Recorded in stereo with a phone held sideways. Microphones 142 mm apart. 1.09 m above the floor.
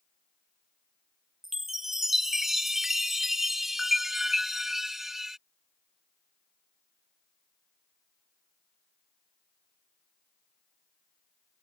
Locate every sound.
1.4 s a chime: centre (ahead or behind)